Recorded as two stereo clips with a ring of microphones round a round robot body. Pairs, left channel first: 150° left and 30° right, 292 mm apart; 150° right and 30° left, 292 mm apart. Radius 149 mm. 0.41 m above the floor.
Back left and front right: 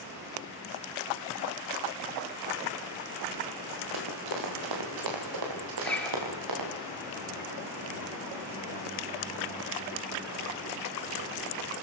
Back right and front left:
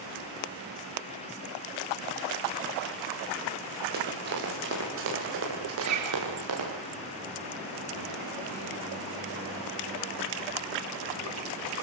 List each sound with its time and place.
3.9 s running footsteps: 30° right, 7.5 m; by 6.7 s 10° right, 9.5 m
5.8 s a zipper: 60° left, 4.5 m